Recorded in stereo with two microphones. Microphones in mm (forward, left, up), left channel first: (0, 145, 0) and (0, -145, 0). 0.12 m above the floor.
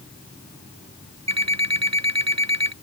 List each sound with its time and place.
1.3 s an alarm clock: 60° right (ahead or behind)